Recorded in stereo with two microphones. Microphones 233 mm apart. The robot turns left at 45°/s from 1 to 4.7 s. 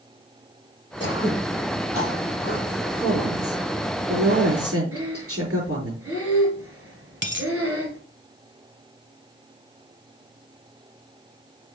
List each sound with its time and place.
1.0 s throat clearing: 55° left (ahead or behind), 2 m; by 2.7 s 45° left (ahead or behind), 2 m
3.0 s a woman speaking: 20° right, 5 m; by 5.9 s 100° right, 5 m
4.9 s breathing: 70° right (ahead or behind), 2 m
7.2 s a dropped coin: 50° right (ahead or behind), 0.9 m